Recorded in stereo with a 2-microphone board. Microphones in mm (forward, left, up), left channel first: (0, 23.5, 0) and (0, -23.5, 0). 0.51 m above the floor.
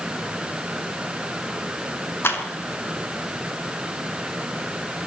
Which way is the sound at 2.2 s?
55° left (ahead or behind).